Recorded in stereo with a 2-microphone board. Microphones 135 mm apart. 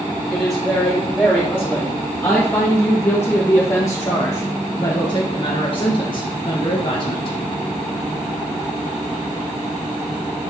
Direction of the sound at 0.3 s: 5° left (ahead or behind).